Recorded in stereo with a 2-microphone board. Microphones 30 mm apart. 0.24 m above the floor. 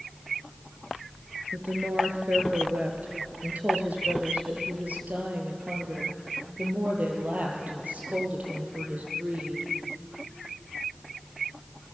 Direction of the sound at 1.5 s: 70° right (ahead or behind).